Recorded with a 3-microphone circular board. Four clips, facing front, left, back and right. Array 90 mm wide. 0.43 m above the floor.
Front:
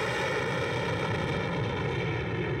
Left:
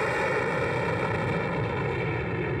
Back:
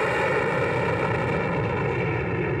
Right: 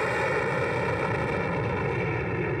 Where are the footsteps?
No footsteps in this recording.